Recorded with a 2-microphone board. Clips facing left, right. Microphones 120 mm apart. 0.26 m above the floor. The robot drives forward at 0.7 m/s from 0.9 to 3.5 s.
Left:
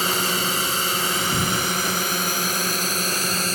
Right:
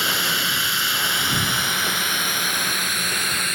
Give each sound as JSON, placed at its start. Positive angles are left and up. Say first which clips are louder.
{"t": 0.0, "sound": "a drone", "louder": "left 2 dB", "side_deg": 40}